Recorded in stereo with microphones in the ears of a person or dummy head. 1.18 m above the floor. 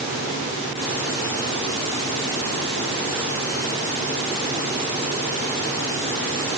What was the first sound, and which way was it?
Only background noise.